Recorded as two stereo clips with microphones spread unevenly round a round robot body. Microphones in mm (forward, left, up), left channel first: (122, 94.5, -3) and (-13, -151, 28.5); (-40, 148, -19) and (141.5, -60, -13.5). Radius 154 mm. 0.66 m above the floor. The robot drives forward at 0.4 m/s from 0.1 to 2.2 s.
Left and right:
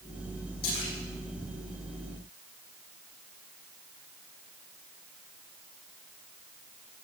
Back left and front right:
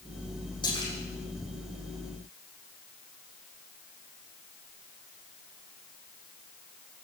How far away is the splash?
About 10 m.